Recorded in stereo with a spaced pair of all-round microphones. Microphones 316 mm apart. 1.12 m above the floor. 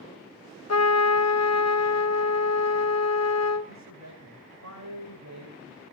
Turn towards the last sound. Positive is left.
turn(degrees=-55)  # may be behind; listen again after turning